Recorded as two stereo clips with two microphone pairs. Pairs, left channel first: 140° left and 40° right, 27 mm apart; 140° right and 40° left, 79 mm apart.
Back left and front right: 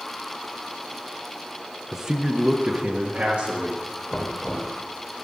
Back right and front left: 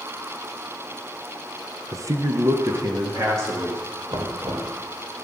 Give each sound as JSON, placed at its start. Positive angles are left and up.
{"t": 1.9, "sound": "a man speaking", "azimuth_deg": 30, "distance_m": 0.7}
{"t": 4.1, "sound": "knocking", "azimuth_deg": 45, "distance_m": 2.5}